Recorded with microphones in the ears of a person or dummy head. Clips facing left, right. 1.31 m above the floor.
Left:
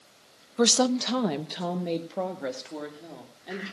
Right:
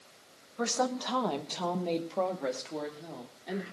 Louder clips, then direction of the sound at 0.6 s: Left 8 dB; 55° left (ahead or behind).